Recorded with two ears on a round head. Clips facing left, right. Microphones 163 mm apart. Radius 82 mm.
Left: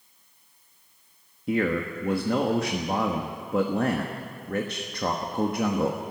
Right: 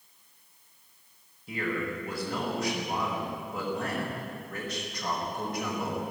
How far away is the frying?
No frying in this recording.